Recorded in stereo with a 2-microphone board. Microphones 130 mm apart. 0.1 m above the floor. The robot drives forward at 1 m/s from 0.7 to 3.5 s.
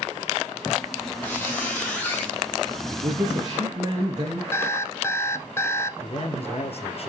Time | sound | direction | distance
1.2 | a squeak | 15° left (ahead or behind) | 4.5 m
3.0 | a man speaking | 35° right (ahead or behind) | 1.6 m
4.5 | an alarm clock | 20° left (ahead or behind) | 1.0 m
6.0 | a man speaking | 50° left (ahead or behind) | 2.0 m